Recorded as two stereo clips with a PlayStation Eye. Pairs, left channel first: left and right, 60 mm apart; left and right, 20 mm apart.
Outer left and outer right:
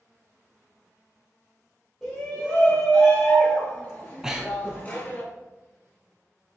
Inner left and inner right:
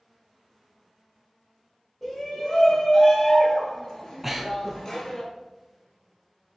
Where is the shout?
5° left (ahead or behind), 3.5 m; by 5.2 s 30° left (ahead or behind), 1.8 m.